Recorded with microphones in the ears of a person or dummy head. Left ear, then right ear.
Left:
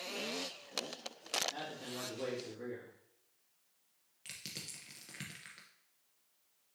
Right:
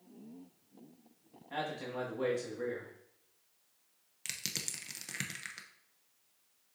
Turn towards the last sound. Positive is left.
turn(degrees=-10)  # may be behind; listen again after turning